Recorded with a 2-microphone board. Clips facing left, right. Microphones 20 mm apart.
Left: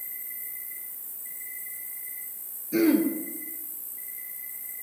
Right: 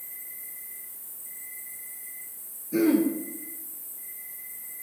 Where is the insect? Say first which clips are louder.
Left 2 dB; 70° left (ahead or behind), 1.5 m.